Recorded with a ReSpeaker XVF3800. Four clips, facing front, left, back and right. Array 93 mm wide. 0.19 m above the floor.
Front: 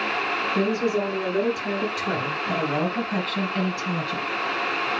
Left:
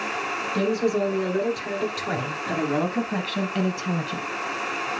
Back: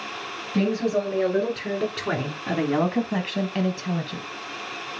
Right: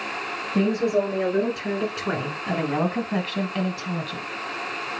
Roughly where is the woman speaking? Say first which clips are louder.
Right 2 dB, back 2 dB; behind right.